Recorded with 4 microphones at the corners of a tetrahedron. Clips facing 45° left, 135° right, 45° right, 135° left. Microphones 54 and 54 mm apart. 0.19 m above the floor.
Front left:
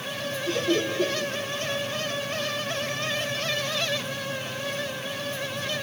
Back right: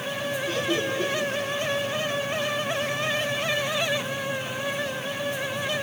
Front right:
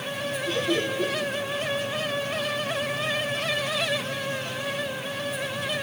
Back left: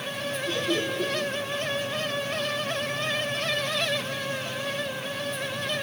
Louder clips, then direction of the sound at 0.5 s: Front left 3 dB, front right 2 dB; 45° left.